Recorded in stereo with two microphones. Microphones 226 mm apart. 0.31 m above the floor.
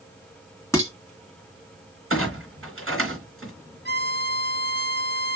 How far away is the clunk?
About 3.5 m.